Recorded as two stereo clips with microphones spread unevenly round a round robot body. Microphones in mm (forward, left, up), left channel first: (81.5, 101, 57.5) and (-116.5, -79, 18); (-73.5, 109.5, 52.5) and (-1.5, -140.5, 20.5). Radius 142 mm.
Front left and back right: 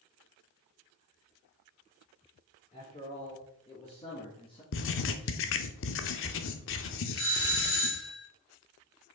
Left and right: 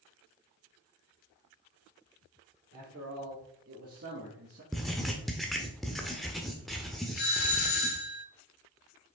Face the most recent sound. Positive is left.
turn(degrees=70)